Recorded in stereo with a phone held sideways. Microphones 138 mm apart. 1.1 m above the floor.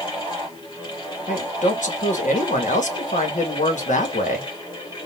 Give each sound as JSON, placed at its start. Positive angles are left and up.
{"t": 0.0, "sound": "a fan", "side_deg": 35, "distance_m": 2.5}
{"t": 1.3, "sound": "a man speaking", "side_deg": 70, "distance_m": 1.2}